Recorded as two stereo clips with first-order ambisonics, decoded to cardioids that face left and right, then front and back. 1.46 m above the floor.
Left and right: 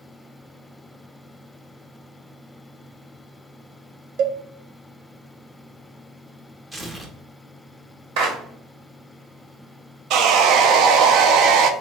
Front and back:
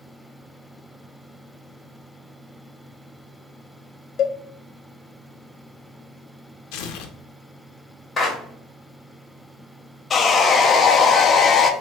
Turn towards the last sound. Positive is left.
turn(degrees=-65)